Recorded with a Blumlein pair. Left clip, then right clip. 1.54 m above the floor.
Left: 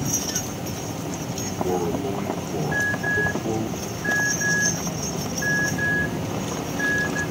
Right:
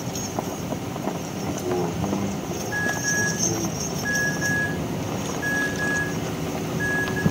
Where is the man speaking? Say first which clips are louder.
Left 1 dB; 50° left, 6 m.